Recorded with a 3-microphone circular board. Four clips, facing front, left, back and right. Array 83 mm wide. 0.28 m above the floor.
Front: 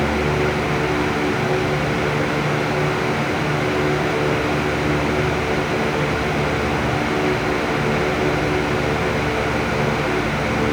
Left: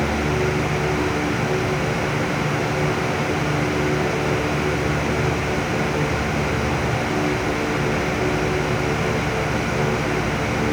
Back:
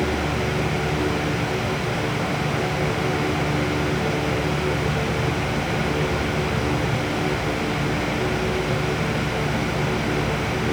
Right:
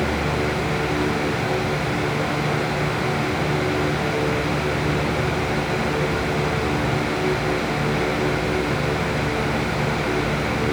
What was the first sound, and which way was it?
Only background noise.